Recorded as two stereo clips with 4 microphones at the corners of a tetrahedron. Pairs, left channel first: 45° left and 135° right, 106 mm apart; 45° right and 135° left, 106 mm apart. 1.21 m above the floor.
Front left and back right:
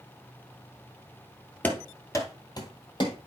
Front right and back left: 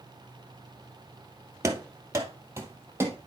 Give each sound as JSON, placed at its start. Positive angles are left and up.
{"t": 1.6, "sound": "running footsteps", "azimuth_deg": 100, "distance_m": 1.3}